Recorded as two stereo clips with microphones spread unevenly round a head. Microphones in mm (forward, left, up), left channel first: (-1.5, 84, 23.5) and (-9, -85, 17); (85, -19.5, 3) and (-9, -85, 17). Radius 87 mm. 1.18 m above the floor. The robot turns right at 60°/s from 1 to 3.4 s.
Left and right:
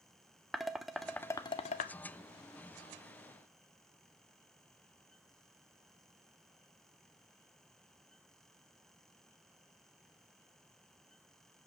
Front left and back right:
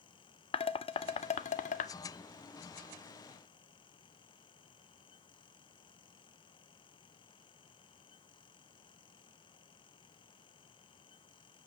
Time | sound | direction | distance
0.5 | dishes clattering | straight ahead | 0.5 m